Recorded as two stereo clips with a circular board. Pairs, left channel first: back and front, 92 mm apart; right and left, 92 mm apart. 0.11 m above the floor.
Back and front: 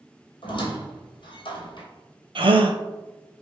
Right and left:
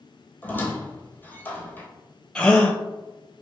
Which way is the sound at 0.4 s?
155° right.